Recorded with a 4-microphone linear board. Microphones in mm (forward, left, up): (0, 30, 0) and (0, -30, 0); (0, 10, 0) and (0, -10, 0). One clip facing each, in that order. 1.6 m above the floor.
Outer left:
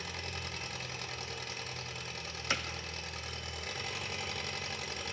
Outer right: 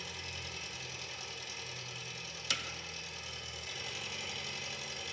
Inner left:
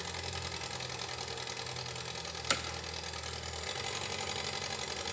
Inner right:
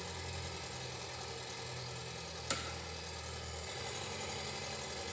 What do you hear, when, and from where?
0.0 s an engine running: 55° left (ahead or behind), 1.1 m
2.5 s hammering: 30° left (ahead or behind), 0.5 m